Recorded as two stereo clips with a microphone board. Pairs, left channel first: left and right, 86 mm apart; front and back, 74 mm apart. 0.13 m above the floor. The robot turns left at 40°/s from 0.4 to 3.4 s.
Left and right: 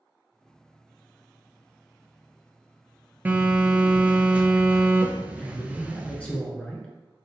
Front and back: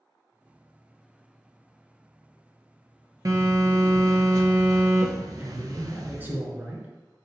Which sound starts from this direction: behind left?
A man speaking, at 5.4 s.